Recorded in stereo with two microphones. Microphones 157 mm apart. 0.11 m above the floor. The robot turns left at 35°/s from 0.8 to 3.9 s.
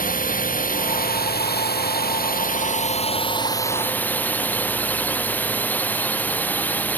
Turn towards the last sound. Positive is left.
turn(degrees=10)